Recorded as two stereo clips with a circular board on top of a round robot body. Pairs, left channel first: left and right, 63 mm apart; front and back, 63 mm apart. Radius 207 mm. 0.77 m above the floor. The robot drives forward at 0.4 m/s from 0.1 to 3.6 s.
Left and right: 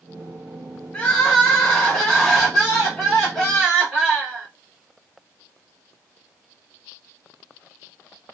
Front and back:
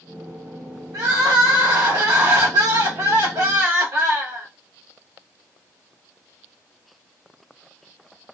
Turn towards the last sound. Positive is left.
turn(degrees=175)